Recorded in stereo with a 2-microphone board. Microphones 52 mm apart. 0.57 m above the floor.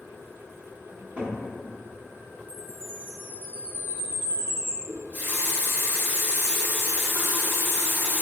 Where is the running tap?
40° right (ahead or behind), 0.7 m.